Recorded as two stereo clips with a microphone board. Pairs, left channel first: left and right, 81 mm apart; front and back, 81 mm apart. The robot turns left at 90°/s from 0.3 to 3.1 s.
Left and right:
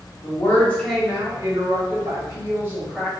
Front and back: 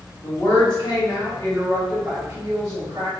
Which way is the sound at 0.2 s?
60° left.